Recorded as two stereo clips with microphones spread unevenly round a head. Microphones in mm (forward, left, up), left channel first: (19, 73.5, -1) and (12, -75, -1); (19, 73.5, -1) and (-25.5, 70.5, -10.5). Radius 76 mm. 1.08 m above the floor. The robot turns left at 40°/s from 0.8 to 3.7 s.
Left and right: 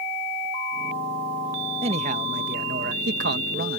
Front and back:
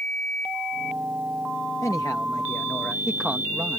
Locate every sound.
1.8 s a man speaking: 45° right; by 3.8 s 120° right